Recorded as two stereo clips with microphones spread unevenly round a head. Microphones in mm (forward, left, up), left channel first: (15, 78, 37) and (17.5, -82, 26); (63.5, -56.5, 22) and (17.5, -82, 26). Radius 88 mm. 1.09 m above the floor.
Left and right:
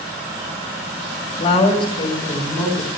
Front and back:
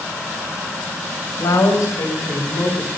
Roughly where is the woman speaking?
Ahead left.